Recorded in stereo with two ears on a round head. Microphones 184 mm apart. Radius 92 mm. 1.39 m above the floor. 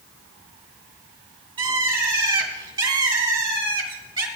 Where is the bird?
25° right (ahead or behind), 2 m.